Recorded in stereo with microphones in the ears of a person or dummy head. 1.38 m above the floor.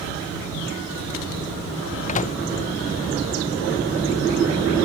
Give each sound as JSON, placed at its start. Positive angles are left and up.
{"t": 2.1, "sound": "a microwave", "side_deg": 40}